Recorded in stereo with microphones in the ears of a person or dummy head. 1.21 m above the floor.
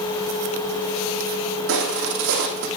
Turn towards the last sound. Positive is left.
turn(degrees=-65)  # may be behind; listen again after turning